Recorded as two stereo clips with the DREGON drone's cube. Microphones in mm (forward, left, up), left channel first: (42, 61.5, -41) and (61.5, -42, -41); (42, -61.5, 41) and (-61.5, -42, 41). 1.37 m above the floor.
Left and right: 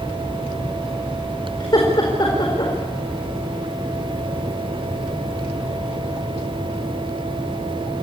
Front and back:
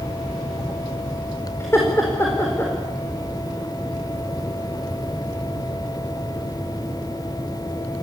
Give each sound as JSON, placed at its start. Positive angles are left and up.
{"t": 1.6, "sound": "laughter", "azimuth_deg": 55, "distance_m": 4.5}